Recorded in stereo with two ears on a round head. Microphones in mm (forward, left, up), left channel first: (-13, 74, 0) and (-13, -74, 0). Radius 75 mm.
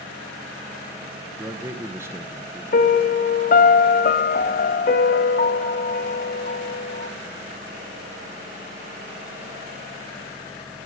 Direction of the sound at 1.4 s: 15° right (ahead or behind).